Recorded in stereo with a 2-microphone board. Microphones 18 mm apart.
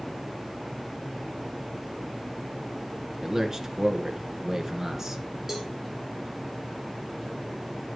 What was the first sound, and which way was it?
A man speaking, 25° right (ahead or behind).